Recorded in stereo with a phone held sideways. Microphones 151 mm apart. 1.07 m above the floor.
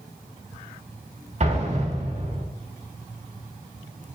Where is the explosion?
45° right (ahead or behind), 2 m.